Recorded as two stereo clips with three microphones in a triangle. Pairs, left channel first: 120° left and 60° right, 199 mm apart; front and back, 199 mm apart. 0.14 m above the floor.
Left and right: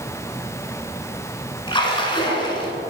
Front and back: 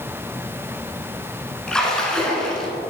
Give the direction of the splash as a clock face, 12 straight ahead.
9 o'clock.